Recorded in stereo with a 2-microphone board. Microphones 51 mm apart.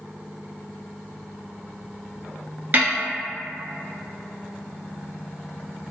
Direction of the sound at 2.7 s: 35° right (ahead or behind).